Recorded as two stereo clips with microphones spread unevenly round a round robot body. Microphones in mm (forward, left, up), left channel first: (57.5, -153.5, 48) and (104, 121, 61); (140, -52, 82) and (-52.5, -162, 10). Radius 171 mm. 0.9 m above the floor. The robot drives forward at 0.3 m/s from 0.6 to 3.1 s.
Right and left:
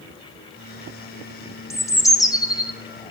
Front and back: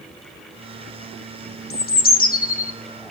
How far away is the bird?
About 1.4 m.